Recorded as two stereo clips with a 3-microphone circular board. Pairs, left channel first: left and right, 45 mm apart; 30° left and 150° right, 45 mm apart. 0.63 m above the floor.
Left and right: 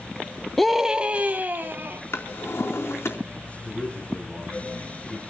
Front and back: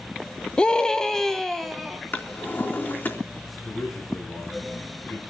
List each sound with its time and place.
0.6 s a scream: 10° left, 0.8 m; by 2.0 s 60° right, 1.9 m
2.1 s a drawer: 70° left, 3.5 m
3.6 s a man speaking: 15° left, 4.5 m